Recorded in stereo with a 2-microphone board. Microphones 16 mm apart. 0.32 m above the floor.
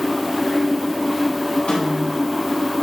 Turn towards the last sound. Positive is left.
turn(degrees=70)  # may be behind; listen again after turning